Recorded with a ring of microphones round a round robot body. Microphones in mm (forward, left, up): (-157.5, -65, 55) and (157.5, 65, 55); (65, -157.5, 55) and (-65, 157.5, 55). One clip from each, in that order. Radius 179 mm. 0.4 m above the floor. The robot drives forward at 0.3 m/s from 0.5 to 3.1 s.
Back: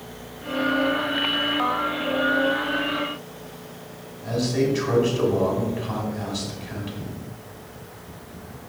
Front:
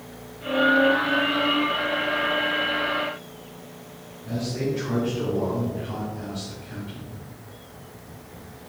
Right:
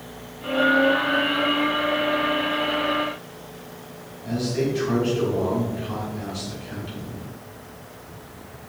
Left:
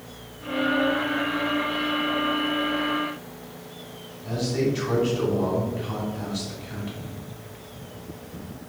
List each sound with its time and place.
4.2 s a man speaking: 170° right, 3 m